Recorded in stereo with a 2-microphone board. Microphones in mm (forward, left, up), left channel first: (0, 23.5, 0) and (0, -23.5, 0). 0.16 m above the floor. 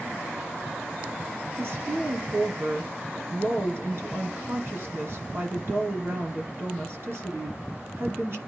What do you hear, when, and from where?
1.6 s a woman speaking: 55° right (ahead or behind), 2.5 m